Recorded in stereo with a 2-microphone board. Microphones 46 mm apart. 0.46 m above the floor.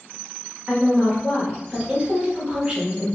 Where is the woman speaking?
20° right (ahead or behind), 1.7 m.